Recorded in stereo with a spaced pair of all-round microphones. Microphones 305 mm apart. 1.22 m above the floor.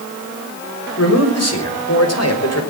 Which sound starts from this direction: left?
A man speaking, at 1.0 s.